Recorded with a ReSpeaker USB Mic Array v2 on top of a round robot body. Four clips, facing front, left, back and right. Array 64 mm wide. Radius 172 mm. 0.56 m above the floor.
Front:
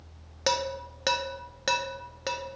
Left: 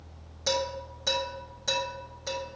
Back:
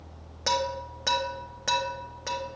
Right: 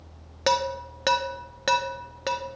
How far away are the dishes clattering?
About 0.8 m.